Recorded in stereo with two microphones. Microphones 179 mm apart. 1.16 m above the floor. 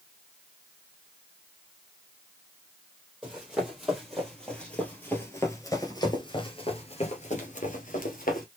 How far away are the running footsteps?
About 2.5 m.